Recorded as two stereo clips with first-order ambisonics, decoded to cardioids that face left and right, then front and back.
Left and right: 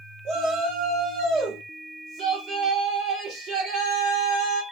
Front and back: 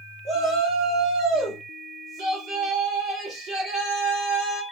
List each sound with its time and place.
0.2 s a shout: 145° right, 0.9 m